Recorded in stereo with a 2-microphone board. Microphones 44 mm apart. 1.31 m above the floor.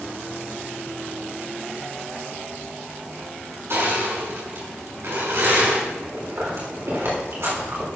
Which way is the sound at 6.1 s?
70° right (ahead or behind).